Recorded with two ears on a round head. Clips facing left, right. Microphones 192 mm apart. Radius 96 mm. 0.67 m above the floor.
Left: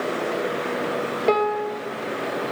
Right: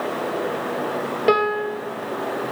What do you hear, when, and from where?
1.3 s a piano: 10° right (ahead or behind), 2.5 m